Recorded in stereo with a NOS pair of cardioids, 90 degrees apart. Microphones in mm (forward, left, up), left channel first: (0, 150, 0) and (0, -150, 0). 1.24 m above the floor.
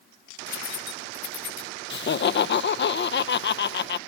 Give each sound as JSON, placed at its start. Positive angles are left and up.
{"t": 0.5, "sound": "keys jangling", "azimuth_deg": 70, "distance_m": 1.9}
{"t": 1.9, "sound": "laughter", "azimuth_deg": 40, "distance_m": 0.9}